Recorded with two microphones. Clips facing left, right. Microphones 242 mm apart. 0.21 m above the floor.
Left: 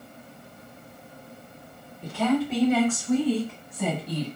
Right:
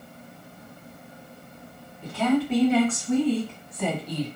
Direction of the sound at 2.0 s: 5° right (ahead or behind).